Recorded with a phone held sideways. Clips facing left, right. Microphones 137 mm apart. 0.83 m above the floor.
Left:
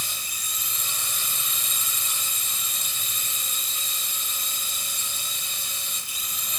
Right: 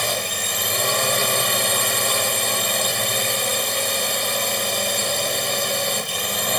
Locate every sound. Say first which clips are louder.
0.0 s a drone: right 16 dB; 70° right (ahead or behind)